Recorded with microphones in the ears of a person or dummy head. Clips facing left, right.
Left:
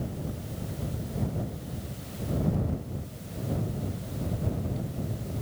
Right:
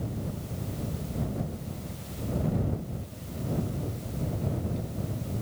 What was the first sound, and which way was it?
Only background noise.